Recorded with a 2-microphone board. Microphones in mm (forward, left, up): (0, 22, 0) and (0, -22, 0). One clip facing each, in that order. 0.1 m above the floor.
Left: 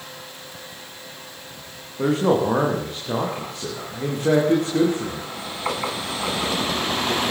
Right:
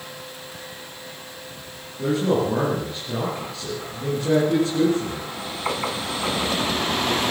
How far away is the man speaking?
About 7 m.